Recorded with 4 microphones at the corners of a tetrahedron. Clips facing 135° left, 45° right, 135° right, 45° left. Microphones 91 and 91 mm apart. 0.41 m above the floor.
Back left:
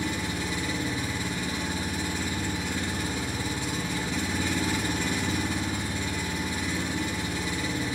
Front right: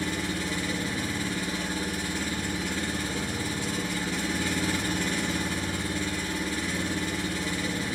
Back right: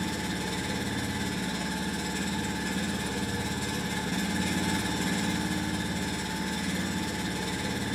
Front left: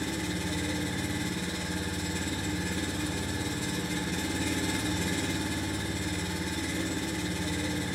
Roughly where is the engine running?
Behind right.